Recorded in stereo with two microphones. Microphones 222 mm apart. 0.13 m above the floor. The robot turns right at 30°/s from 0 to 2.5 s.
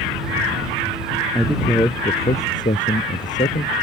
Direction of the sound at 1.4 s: Straight ahead.